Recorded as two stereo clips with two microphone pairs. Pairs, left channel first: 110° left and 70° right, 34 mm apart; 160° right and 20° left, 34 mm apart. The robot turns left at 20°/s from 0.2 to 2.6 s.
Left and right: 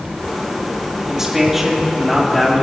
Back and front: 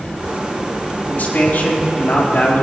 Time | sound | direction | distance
1.1 | a man speaking | 145° right | 4 m